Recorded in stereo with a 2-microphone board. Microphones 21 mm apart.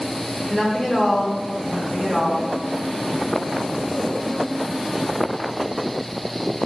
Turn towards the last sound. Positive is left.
turn(degrees=20)  # may be behind; listen again after turning